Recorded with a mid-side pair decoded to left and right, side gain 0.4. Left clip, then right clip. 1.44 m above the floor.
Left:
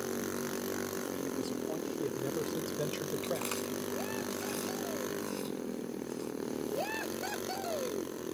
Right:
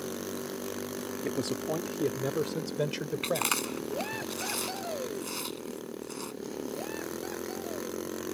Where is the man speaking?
70° right; by 4.2 s 40° right.